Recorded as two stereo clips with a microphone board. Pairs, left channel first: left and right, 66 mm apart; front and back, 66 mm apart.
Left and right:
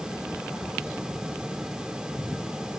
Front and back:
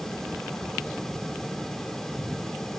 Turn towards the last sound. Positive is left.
No sound to turn to.